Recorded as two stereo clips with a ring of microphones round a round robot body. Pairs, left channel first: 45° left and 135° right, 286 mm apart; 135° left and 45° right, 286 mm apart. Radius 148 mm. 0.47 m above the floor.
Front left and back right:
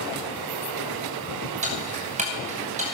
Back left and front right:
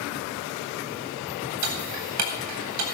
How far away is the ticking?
About 3.5 m.